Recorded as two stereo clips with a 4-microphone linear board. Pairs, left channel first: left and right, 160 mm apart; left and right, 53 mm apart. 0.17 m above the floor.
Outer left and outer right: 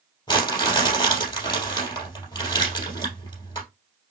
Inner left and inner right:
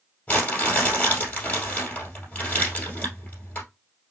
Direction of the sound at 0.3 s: 25° left (ahead or behind).